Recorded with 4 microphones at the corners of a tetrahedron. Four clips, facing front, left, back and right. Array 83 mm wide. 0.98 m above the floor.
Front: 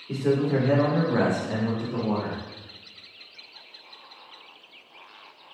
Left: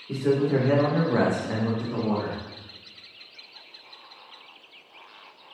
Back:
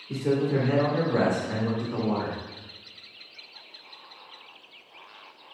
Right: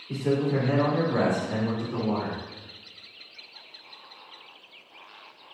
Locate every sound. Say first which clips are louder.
0.1 s a man speaking: left 3 dB, front 2 dB; 40° left, 1.3 m; by 2.4 s 140° left, 1.2 m